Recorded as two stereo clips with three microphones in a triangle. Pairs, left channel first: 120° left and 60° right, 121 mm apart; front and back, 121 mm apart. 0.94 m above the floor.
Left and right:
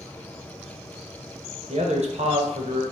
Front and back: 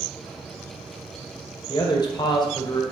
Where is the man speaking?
50° right, 0.7 m.